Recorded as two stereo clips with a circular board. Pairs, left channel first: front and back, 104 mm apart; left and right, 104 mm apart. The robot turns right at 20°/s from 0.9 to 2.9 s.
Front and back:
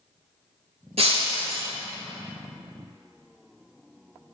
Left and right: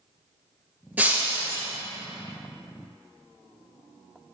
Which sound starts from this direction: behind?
Breaking glass, at 1.0 s.